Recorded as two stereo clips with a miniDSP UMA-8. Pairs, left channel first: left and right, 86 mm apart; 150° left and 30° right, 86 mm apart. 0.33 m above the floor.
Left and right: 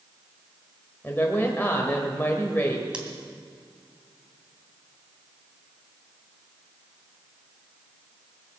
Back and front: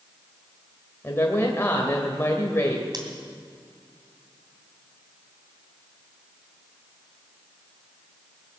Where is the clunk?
I don't hear a clunk.